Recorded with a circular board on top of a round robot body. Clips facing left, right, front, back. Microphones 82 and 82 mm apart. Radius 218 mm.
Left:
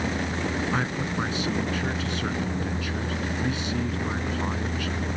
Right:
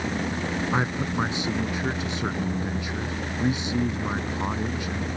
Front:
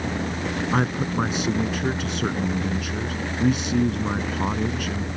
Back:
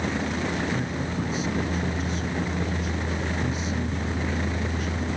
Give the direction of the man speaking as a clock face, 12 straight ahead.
1 o'clock.